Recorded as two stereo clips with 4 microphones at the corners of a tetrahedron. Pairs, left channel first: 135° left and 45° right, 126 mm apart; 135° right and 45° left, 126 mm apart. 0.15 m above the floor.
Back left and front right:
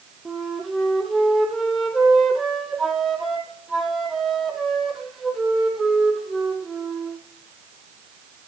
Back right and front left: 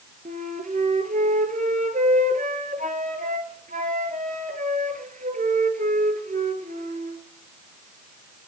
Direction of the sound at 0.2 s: 45° left.